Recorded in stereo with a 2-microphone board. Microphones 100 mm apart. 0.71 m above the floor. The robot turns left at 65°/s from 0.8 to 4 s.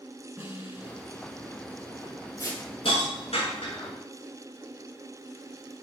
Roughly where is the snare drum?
Right.